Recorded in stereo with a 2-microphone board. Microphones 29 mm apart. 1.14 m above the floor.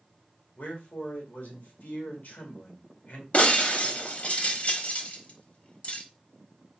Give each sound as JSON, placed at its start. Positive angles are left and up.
{"t": 0.6, "sound": "a man speaking", "side_deg": 70, "distance_m": 1.9}
{"t": 3.3, "sound": "breaking glass", "side_deg": 50, "distance_m": 0.9}